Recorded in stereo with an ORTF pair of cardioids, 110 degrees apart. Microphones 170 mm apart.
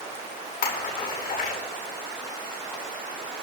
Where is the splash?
65° left, 5.5 m.